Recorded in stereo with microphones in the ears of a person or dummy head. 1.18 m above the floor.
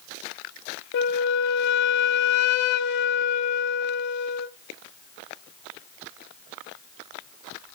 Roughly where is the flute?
Left.